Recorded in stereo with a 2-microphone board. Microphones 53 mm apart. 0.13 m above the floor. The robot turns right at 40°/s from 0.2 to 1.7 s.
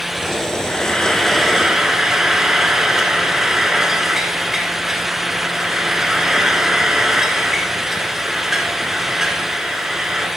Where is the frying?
150° left, 1.5 m; by 10.3 s 165° right, 1.5 m.